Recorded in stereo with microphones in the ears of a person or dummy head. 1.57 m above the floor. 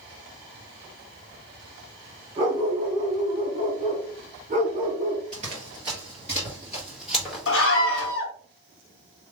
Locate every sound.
2.4 s a dog barking: 20° right (ahead or behind), 1.1 m; by 5.2 s 50° right (ahead or behind), 2 m
5.3 s running footsteps: 30° right (ahead or behind), 1.7 m; by 8.1 s 5° left (ahead or behind), 1.9 m
7.5 s a scream: 65° left (ahead or behind), 1.2 m